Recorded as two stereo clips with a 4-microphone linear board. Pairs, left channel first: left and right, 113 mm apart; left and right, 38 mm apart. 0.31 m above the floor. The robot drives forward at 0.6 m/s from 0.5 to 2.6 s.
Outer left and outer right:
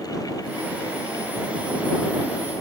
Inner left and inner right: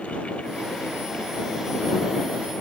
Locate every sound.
Only background noise.